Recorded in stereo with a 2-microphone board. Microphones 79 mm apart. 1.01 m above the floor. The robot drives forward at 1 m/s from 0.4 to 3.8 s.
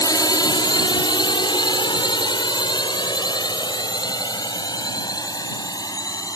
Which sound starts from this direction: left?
A drone, at 0.0 s.